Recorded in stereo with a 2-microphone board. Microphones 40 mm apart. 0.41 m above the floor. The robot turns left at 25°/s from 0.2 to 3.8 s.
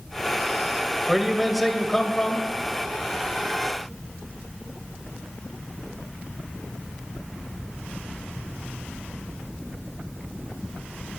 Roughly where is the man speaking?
Behind.